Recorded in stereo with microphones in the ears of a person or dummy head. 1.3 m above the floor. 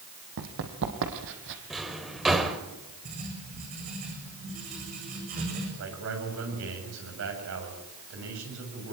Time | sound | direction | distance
0.4 | running footsteps | 70° right (ahead or behind) | 4 m
1.7 | a drawer | 5° right (ahead or behind) | 2.5 m
3.0 | writing | 40° right (ahead or behind) | 8.5 m
5.8 | a man speaking | 70° right (ahead or behind) | 7.5 m